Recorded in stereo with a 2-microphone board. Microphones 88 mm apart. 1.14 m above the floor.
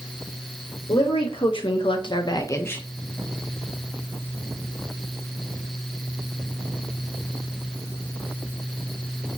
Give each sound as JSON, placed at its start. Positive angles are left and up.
{"t": 0.9, "sound": "a woman speaking", "side_deg": 80, "distance_m": 1.8}